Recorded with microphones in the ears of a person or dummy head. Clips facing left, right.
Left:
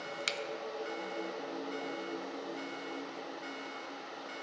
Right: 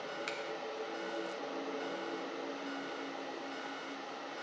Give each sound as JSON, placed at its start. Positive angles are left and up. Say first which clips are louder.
{"t": 0.3, "sound": "a finger snap", "louder": "left 1 dB", "side_deg": 45, "distance_m": 0.5}